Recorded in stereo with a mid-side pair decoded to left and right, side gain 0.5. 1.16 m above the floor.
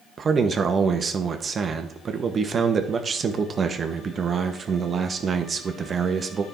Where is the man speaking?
35° right, 1.3 m.